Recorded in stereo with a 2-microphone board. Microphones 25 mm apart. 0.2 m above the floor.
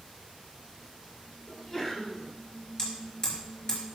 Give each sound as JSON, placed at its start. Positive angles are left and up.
{"t": 1.5, "sound": "a sneeze", "side_deg": 25, "distance_m": 3.0}
{"t": 2.8, "sound": "hammering", "side_deg": 35, "distance_m": 3.0}